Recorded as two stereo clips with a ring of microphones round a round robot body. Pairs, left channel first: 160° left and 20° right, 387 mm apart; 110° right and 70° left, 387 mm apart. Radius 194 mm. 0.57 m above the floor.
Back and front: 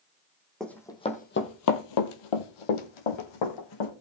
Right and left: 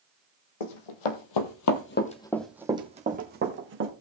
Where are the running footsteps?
115° right, 1.9 m; by 3.9 s 125° left, 3 m.